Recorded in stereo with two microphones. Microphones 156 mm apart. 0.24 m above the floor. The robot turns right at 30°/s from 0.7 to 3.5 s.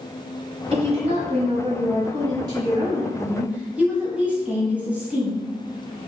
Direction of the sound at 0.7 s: 100° right.